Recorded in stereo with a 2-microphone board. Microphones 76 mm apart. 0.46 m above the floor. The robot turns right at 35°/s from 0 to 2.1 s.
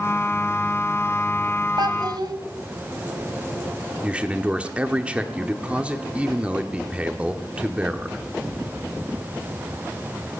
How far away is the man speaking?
About 0.8 m.